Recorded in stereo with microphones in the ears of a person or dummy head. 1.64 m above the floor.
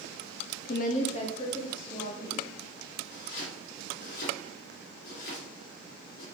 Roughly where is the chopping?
Left.